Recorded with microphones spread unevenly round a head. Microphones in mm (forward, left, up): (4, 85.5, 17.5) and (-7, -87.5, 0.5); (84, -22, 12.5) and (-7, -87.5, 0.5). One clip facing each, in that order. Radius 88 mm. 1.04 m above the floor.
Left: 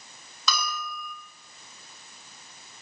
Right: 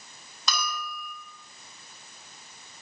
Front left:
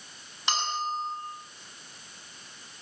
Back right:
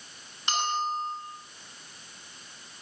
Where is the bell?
75° left, 8.5 m.